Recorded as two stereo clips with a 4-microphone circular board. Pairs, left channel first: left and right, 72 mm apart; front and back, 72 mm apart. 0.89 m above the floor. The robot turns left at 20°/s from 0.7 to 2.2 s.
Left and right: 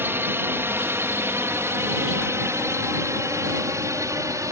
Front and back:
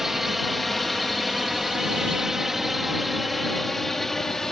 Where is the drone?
95° right; by 4.5 s 80° right.